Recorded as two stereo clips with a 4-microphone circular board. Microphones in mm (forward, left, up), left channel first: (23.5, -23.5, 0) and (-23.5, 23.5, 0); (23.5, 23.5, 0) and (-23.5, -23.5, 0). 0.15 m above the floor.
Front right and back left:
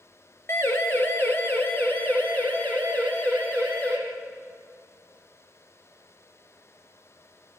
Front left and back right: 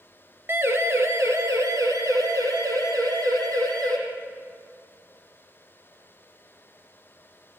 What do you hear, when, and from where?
0.5 s a siren: 90° right, 3 m; by 4.0 s 115° right, 7 m